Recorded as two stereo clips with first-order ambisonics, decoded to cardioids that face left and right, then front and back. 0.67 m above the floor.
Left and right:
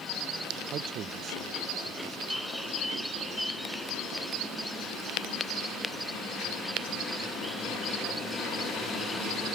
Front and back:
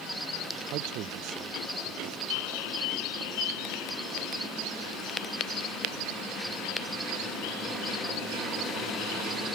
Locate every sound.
0.7 s a man speaking: 145° right
2.3 s a bird: straight ahead